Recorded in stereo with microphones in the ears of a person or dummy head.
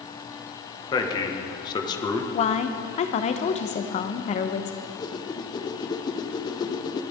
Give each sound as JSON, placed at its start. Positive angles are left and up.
{"t": 0.9, "sound": "a man speaking", "side_deg": 20, "distance_m": 1.6}
{"t": 2.3, "sound": "a woman speaking", "side_deg": 30, "distance_m": 0.9}
{"t": 4.8, "sound": "a whoosh", "side_deg": 20, "distance_m": 0.7}